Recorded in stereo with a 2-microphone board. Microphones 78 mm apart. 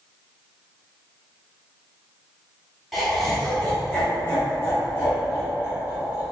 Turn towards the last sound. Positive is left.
turn(degrees=35)  # may be behind; listen again after turning